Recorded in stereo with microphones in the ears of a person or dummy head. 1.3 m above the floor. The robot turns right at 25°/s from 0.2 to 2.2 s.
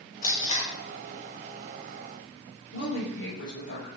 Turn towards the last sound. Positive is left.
turn(degrees=85)